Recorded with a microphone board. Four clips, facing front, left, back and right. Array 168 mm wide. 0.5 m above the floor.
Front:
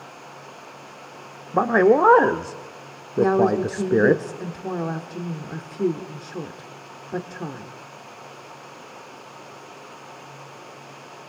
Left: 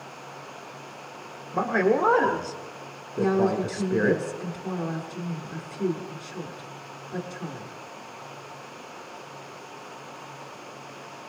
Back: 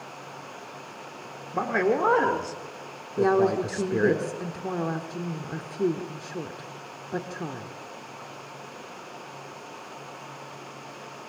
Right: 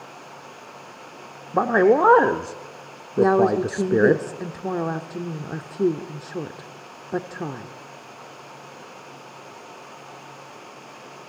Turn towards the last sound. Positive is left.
turn(degrees=-80)